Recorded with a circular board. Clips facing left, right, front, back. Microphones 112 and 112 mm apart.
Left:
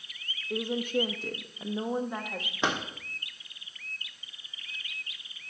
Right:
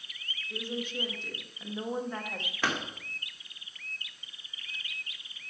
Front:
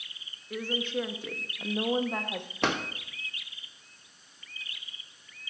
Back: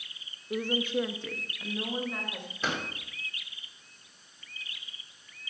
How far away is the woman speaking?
About 1.0 m.